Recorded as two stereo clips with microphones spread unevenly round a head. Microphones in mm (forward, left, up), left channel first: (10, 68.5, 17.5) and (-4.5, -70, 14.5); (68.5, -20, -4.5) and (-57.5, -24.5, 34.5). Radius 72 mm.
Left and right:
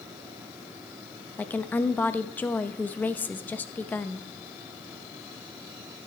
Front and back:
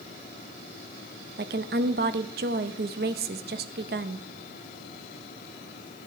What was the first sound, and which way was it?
A woman speaking, 160° left.